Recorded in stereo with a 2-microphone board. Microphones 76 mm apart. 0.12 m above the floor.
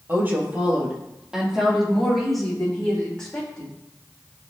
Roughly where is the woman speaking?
Right.